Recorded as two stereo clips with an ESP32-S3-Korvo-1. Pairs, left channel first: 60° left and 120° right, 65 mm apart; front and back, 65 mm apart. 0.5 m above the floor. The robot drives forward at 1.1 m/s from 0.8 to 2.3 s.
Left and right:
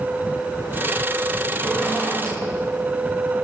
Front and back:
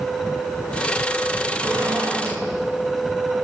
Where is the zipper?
140° left, 6 m; by 2.4 s 145° left, 6.5 m.